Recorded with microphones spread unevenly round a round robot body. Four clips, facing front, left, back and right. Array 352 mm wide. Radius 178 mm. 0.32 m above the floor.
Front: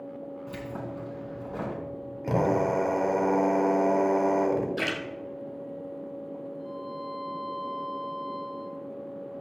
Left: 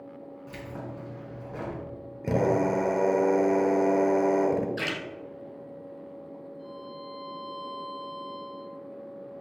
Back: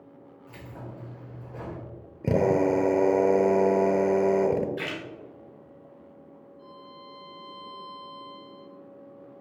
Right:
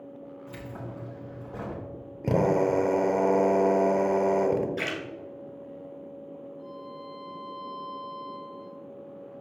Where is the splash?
5° left, 1.5 m.